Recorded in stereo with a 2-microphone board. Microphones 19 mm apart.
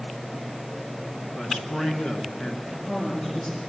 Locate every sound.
1.3 s a man speaking: 65° left (ahead or behind), 3 m
2.7 s a woman speaking: 40° left (ahead or behind), 4.5 m